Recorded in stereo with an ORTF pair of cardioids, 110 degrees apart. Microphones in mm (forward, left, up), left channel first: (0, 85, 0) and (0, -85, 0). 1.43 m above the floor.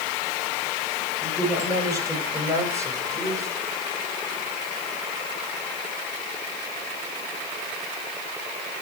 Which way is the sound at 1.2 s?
15° right.